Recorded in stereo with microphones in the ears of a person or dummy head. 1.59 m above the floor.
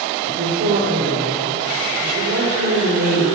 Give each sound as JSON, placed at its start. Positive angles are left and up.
{"t": 0.2, "sound": "a woman speaking", "side_deg": -75, "distance_m": 6.5}